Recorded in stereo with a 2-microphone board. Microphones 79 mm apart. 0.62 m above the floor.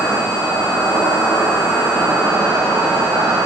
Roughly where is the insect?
Right.